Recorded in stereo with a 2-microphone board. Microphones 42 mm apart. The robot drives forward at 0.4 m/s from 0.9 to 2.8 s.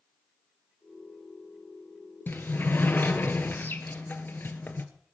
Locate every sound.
2.3 s a sliding door: 50° left (ahead or behind), 1.4 m; by 4.8 s 45° left (ahead or behind), 1.4 m